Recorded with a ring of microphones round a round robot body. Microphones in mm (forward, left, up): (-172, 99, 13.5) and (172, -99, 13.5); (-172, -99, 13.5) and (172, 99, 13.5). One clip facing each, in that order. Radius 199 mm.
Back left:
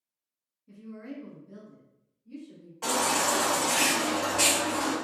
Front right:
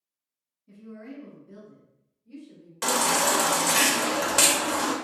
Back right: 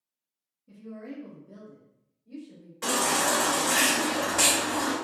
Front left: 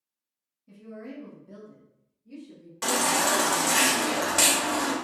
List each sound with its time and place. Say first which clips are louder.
0.7 s a woman speaking: back left 1 dB, back right 1 dB; 45° left, 0.9 m; by 2.7 s 50° left, 1.9 m
2.8 s a baby crying: front right 2 dB, front left 1 dB; 35° right, 0.8 m